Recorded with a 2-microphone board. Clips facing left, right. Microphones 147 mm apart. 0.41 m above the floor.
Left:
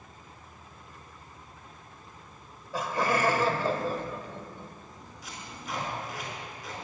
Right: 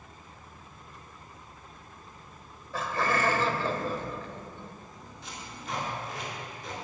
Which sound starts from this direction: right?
Tape being pulled, at 5.2 s.